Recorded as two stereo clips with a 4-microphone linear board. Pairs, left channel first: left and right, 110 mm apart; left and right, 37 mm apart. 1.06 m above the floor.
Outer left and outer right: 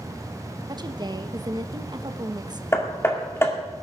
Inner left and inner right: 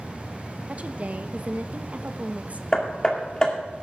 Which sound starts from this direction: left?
Hammering, at 2.7 s.